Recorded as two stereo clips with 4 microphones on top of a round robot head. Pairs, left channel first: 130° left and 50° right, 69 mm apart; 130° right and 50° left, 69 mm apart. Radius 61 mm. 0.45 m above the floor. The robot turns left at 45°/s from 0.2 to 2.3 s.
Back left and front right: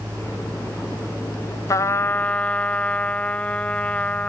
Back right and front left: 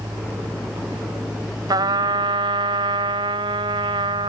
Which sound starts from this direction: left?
A trumpet, at 1.7 s.